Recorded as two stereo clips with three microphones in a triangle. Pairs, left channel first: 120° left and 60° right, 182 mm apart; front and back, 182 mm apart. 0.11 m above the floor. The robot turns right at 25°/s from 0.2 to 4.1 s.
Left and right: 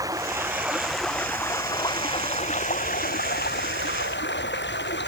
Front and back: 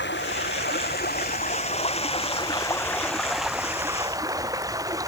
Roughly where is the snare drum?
No snare drum in this recording.